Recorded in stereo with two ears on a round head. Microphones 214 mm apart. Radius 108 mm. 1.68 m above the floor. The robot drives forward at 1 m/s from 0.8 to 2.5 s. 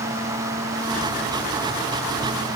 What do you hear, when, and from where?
Only background noise.